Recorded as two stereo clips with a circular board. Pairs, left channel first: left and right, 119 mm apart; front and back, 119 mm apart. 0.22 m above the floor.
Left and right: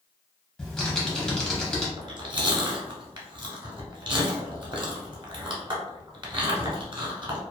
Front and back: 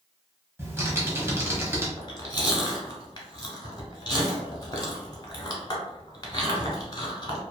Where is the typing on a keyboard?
165° left, 0.9 m.